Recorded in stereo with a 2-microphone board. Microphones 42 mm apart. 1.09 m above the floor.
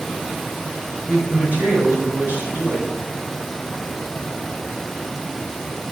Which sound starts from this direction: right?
A woman speaking, at 1.1 s.